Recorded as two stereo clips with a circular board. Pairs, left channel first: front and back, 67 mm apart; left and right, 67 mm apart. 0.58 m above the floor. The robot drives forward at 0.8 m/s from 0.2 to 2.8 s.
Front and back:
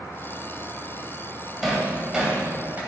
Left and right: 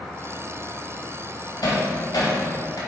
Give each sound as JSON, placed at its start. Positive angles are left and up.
{"t": 1.6, "sound": "hammering", "azimuth_deg": 90, "distance_m": 2.5}